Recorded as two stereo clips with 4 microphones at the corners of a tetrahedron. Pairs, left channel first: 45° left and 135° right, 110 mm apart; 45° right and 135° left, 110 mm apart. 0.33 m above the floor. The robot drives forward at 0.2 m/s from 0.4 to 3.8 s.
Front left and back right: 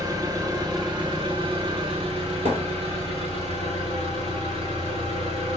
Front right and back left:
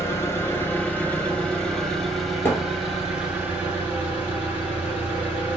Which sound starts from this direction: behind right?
A thud, at 2.5 s.